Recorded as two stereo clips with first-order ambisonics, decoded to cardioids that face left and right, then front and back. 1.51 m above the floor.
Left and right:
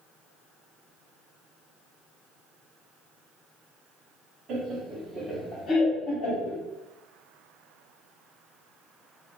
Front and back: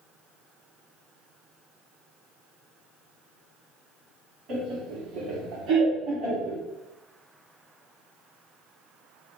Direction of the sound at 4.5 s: 140° right.